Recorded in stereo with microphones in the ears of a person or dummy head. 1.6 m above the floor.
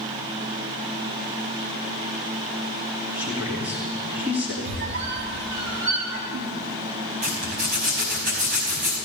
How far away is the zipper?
About 4.5 m.